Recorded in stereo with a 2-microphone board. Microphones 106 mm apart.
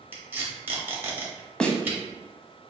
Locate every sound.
0.1 s tape being pulled: 20° right (ahead or behind), 1.1 m
1.6 s a snare drum: 10° left (ahead or behind), 0.6 m